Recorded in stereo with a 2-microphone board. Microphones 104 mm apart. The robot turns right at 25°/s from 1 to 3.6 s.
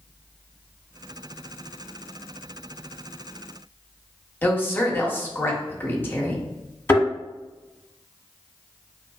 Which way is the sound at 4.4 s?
20° left (ahead or behind).